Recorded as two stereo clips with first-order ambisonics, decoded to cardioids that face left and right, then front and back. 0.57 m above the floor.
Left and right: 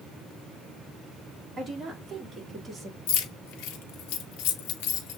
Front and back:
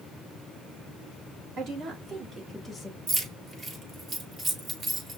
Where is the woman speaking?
160° right, 1.5 m; by 3.0 s 65° right, 1.2 m.